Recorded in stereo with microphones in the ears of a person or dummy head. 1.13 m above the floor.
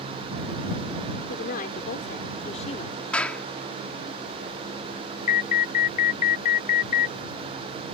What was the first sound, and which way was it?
A woman speaking, 50° left (ahead or behind).